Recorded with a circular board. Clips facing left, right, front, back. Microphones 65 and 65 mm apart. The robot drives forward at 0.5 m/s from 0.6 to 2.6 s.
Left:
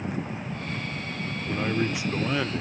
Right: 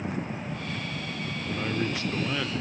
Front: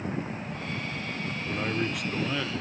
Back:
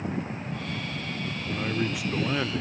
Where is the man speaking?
55° left, 0.9 m; by 2.6 s 145° left, 0.9 m.